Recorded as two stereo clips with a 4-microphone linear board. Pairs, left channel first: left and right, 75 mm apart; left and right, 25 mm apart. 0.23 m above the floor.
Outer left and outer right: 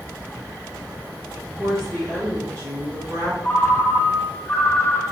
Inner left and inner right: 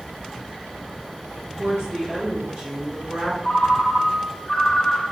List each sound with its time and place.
1.6 s a woman speaking: 30° right (ahead or behind), 1.5 m; by 3.3 s 50° right (ahead or behind), 2.5 m
3.4 s a ringtone: 20° left (ahead or behind), 0.5 m